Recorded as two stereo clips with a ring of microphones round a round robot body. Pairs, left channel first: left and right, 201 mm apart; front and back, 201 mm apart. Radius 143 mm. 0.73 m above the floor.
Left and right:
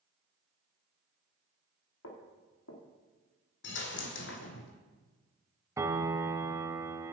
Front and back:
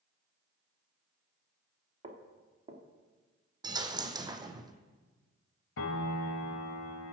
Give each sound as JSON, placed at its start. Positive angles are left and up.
{"t": 2.0, "sound": "footsteps", "azimuth_deg": 120, "distance_m": 3.0}
{"t": 3.6, "sound": "a dropped coin", "azimuth_deg": 110, "distance_m": 1.3}
{"t": 5.8, "sound": "a piano", "azimuth_deg": -15, "distance_m": 1.0}